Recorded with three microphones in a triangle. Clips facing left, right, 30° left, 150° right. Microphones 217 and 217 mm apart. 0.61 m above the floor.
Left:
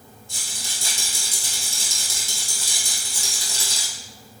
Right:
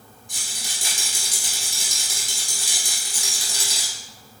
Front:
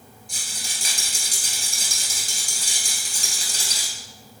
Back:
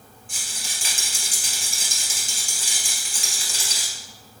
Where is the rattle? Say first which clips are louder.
Right 1 dB, even; 20° right, 1.6 m.